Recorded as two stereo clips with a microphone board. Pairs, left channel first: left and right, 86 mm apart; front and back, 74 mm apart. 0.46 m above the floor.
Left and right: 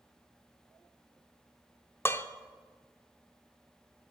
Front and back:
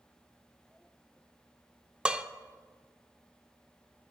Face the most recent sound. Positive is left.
turn(degrees=110)